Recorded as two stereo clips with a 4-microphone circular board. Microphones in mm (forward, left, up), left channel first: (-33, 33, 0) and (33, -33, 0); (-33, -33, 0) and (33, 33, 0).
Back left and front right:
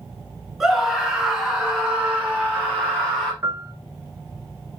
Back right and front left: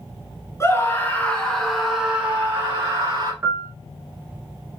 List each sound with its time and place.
0.6 s a scream: 135° right, 1.4 m; by 3.3 s 25° left, 1.6 m
3.4 s a piano: 5° left, 0.7 m